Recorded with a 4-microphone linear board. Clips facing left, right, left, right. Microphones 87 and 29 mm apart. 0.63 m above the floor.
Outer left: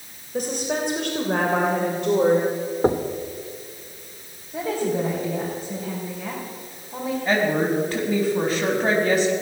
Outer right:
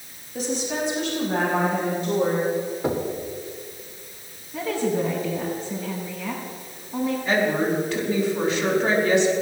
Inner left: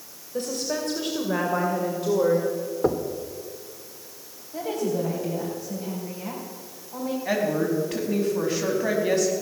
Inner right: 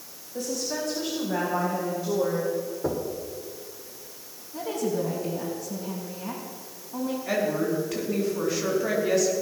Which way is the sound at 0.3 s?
50° left (ahead or behind).